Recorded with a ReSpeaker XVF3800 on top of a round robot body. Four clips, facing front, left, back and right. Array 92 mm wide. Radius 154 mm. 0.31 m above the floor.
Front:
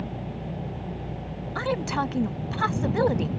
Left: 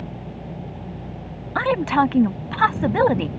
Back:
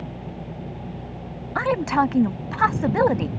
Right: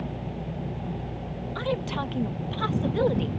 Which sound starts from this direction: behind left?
A woman speaking, at 1.6 s.